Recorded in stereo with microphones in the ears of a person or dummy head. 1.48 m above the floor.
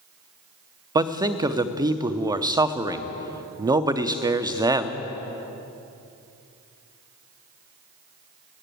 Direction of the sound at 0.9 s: 20° right (ahead or behind).